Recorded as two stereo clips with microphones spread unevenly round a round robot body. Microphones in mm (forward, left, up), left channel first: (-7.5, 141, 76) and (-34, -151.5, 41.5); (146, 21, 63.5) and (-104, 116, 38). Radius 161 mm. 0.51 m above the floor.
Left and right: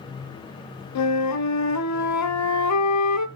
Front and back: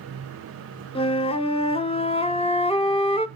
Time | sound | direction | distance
0.9 | a flute | 50° left | 0.6 m